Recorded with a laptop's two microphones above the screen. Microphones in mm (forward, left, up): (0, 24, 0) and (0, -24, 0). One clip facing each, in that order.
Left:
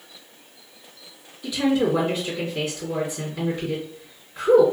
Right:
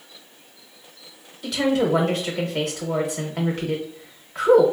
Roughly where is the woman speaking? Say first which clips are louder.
Even; right.